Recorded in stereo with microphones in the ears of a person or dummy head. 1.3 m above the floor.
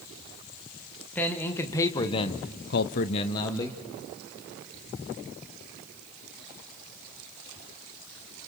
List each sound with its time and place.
1.1 s a man speaking: 15° left (ahead or behind), 2.5 m